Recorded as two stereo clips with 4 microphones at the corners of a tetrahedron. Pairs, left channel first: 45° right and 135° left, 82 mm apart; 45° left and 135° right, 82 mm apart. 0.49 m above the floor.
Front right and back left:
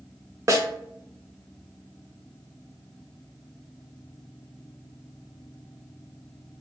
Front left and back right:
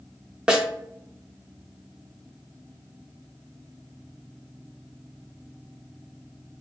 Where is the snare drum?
150° left, 0.7 m.